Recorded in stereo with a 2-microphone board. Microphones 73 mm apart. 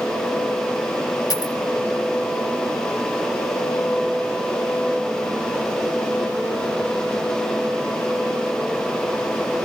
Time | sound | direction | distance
1.3 | a dropped coin | 55° left (ahead or behind) | 2.5 m